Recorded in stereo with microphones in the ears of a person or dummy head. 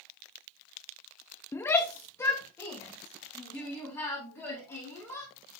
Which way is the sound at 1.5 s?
10° left (ahead or behind).